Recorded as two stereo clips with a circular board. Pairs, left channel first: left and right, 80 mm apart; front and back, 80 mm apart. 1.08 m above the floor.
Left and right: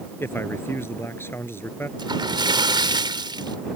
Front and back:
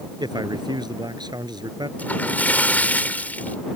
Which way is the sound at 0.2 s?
150° left.